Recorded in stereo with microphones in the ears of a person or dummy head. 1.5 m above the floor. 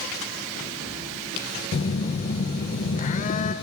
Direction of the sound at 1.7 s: 40° left (ahead or behind).